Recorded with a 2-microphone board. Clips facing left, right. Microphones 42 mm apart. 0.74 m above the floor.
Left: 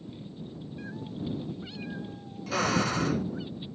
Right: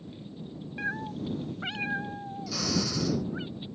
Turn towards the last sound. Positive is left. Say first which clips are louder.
# left 5 dB
turn(degrees=35)  # may be behind; listen again after turning